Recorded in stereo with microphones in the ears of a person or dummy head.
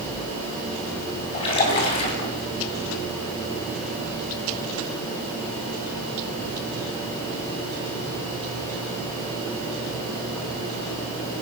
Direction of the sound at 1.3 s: 35° left (ahead or behind).